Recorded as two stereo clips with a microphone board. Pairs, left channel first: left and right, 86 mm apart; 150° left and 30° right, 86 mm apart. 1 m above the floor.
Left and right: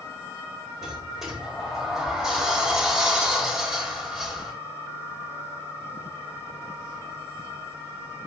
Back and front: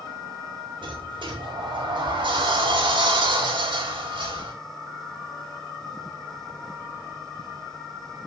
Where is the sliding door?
Straight ahead, 4 m.